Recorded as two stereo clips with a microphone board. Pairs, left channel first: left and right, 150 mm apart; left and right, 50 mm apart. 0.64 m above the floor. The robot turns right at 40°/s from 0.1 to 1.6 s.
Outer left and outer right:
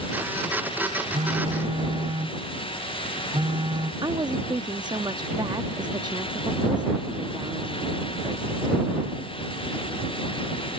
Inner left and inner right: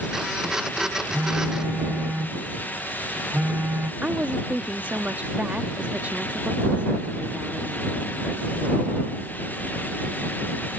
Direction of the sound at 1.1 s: 50° right (ahead or behind).